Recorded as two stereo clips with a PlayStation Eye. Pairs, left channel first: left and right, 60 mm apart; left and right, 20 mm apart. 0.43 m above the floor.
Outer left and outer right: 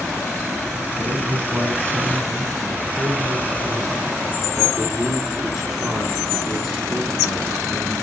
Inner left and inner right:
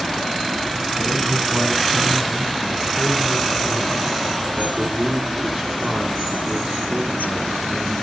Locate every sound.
1.0 s a man speaking: 45° right (ahead or behind), 4.5 m; by 7.9 s centre (ahead or behind), 5 m